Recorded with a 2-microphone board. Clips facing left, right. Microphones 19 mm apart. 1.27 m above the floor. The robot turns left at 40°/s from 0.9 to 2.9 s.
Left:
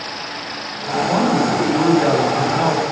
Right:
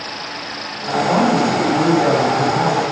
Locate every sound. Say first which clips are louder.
1.1 s a man speaking: right 2 dB; 165° right, 2.5 m; by 2.8 s 125° left, 2.5 m